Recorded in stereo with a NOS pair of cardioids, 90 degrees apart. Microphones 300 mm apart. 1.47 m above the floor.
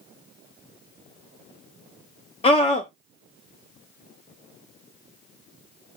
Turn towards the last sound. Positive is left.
turn(degrees=20)